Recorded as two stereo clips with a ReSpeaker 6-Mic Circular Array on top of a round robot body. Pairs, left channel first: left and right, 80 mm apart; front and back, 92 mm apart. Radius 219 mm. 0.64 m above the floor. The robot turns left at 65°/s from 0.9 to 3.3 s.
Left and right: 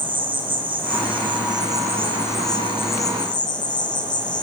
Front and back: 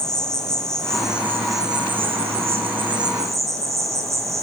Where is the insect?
85° right, 1.6 m; by 4.5 s 120° left, 1.6 m.